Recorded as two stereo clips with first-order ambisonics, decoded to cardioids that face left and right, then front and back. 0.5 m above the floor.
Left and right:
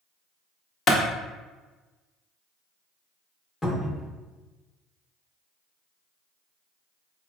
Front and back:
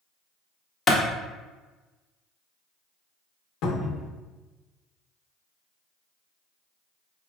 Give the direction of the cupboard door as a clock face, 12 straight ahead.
12 o'clock.